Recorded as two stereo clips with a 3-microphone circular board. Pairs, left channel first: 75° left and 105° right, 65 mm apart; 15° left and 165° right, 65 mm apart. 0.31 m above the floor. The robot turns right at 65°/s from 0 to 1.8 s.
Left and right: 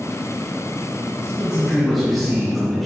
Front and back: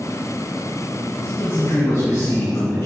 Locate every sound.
1.2 s a man speaking: 55° right, 3 m; by 2.9 s 15° right, 3 m